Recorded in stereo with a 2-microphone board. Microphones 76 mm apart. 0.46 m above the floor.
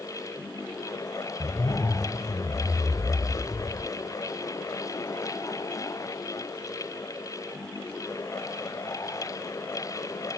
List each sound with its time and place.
1.4 s a zipper: 55° left (ahead or behind), 0.6 m